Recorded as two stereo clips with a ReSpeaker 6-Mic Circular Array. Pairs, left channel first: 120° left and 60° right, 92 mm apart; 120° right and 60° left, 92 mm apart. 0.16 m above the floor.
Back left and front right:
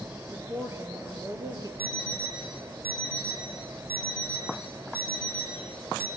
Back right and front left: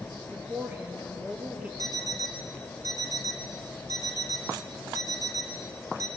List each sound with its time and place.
0.3 s a woman speaking: straight ahead, 2 m; by 1.7 s 15° right, 3 m
1.8 s an alarm clock: 10° left, 3.5 m